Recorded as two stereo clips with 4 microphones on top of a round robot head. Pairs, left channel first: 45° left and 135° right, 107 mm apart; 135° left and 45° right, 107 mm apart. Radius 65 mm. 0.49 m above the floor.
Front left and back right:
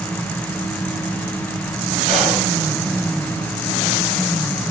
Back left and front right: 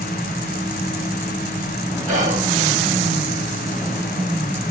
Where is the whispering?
50° right, 4 m.